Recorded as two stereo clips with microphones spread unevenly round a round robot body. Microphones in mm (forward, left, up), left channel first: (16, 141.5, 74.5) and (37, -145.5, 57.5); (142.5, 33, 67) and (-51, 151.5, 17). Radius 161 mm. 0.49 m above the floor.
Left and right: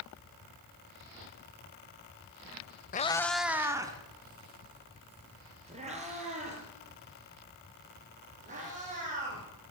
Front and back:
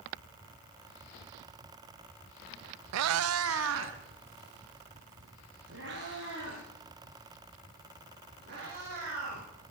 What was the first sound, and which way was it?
A cat meowing, 160° left.